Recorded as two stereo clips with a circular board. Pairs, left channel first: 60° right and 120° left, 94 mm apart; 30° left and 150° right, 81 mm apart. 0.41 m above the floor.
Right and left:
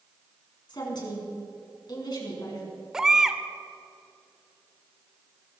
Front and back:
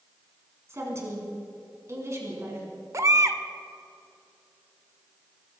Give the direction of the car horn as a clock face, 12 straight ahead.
No car horn in this recording.